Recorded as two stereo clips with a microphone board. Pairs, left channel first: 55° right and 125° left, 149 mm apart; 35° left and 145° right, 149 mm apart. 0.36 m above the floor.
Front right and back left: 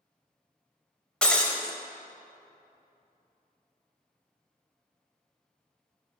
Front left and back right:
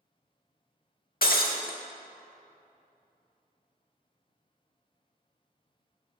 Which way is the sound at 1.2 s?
30° left.